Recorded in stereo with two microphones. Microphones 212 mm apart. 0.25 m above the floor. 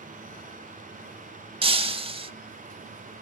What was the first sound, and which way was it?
Breaking glass, 25° right (ahead or behind).